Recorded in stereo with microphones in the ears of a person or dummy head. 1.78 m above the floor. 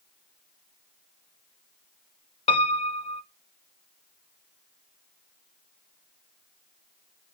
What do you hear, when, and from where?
2.5 s a piano: 30° left (ahead or behind), 0.6 m